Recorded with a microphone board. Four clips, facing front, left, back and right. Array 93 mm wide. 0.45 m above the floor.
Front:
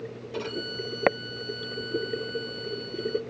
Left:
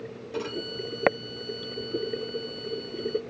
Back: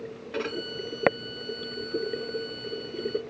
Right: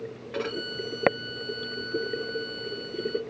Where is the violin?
140° right, 3.5 m.